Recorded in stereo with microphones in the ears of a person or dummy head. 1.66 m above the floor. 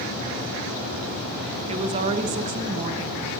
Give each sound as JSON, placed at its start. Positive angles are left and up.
{"t": 1.7, "sound": "a woman speaking", "side_deg": -40, "distance_m": 1.1}